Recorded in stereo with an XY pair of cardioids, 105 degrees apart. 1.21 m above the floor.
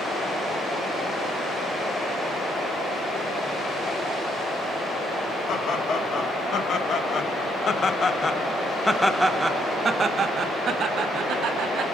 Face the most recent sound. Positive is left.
turn(degrees=-75)